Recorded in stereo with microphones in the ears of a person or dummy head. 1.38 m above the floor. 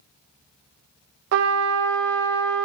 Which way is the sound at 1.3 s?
60° right (ahead or behind).